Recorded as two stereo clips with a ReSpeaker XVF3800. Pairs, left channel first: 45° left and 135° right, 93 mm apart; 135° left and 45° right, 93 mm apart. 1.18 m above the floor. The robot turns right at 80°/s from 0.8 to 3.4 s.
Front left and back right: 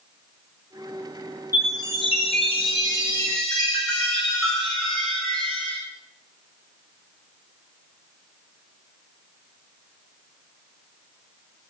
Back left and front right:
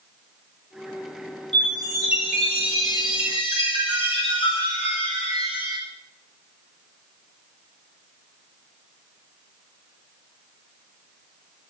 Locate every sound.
1.5 s a chime: 20° right, 8 m; by 5.8 s 130° left, 8 m